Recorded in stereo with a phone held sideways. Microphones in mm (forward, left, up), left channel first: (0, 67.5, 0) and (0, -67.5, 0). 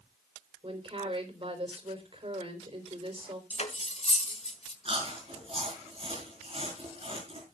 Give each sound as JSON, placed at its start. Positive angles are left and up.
{"t": 0.6, "sound": "a woman speaking", "side_deg": -45, "distance_m": 4.0}
{"t": 3.5, "sound": "cutlery clinking", "side_deg": 50, "distance_m": 1.7}
{"t": 4.8, "sound": "chewing", "side_deg": -45, "distance_m": 5.5}